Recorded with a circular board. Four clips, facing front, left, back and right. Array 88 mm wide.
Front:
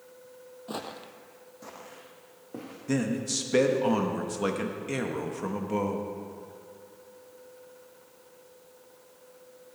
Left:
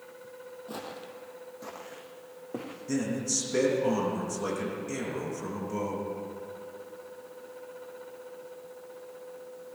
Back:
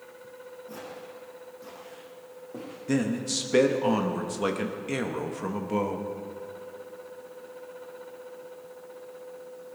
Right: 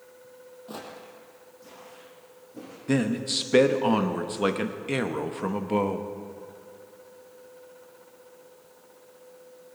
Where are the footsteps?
5° right, 1.2 m; by 2.8 s 80° left, 3.5 m.